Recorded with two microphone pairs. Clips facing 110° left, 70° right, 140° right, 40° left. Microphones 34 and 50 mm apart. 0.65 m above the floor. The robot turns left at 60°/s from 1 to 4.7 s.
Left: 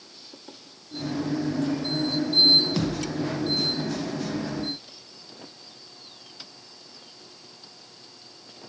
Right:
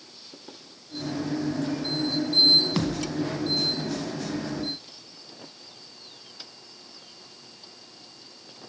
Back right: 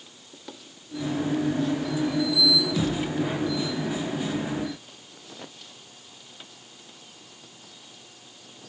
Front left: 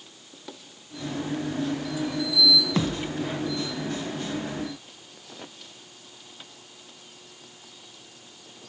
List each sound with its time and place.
2.8 s a thud: straight ahead, 1.2 m; by 3.1 s 20° right, 1.2 m